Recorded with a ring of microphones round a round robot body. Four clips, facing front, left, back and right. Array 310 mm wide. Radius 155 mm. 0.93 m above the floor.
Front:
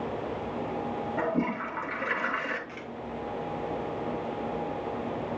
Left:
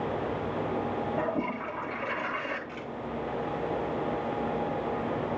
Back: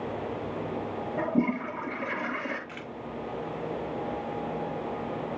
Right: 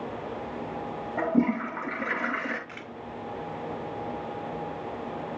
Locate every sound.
1.2 s a toilet flushing: 65° right, 7 m
2.7 s a camera shutter: 120° right, 1.9 m